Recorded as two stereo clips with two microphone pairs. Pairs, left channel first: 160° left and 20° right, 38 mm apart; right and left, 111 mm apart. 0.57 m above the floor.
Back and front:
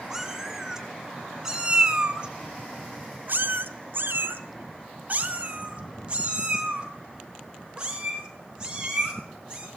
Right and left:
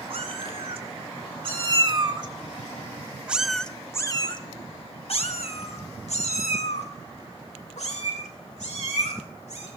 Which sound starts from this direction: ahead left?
A cat meowing, at 0.1 s.